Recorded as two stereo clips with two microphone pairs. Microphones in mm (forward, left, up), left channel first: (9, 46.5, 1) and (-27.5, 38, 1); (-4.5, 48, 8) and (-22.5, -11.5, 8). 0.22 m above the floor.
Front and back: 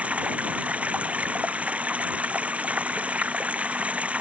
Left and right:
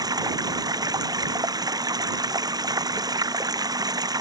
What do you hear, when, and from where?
0.0 s running water: 110° right